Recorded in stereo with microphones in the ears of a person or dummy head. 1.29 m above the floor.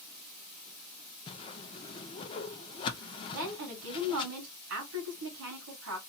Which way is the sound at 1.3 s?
30° left (ahead or behind).